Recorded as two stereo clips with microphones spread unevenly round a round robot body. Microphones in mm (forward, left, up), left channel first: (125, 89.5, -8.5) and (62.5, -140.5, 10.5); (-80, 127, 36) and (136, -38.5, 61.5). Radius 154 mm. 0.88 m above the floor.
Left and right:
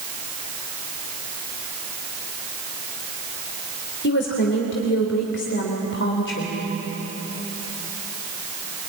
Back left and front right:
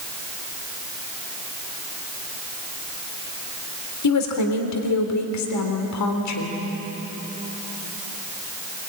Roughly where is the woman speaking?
Behind left.